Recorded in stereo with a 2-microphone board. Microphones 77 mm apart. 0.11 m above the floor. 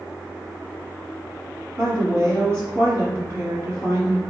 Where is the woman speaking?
35° right (ahead or behind), 1.8 m.